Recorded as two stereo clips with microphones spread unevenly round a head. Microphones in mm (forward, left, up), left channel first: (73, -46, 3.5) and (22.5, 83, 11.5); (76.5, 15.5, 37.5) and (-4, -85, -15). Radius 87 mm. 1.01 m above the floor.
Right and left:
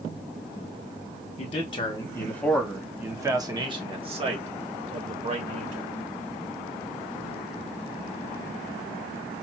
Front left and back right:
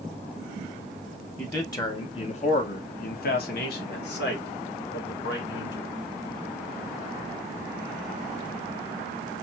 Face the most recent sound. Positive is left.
turn(degrees=80)